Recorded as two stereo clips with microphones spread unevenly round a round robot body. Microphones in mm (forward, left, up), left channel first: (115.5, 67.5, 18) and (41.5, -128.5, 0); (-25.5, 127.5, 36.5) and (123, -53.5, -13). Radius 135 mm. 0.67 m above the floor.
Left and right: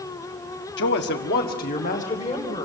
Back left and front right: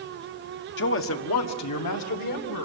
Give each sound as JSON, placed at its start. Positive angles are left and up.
{"t": 0.8, "sound": "a man speaking", "azimuth_deg": 90, "distance_m": 1.5}